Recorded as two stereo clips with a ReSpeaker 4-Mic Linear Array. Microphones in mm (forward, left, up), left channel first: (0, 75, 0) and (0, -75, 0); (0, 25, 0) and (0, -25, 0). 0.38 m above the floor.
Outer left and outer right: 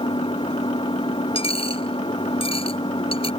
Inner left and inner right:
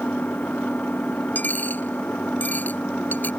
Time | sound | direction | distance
0.0 | an engine running | 35° left (ahead or behind) | ?
1.4 | a dropped coin | 40° left (ahead or behind) | ?